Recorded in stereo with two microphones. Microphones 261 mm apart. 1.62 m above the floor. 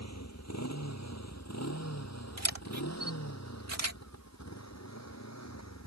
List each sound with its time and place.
0.0 s a motorcycle: 80° left
2.4 s a camera shutter: 75° right (ahead or behind)